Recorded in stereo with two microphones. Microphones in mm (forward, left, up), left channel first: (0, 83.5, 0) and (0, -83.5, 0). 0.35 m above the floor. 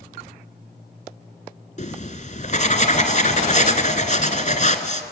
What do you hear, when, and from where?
1.8 s writing: 45° left (ahead or behind), 1.3 m